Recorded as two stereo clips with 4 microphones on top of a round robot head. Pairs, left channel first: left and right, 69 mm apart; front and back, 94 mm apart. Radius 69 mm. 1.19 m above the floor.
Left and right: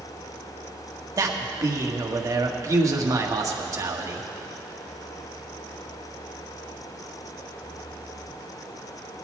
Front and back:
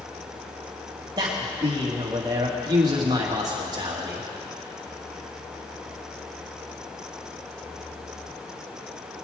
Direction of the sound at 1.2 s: 125° right.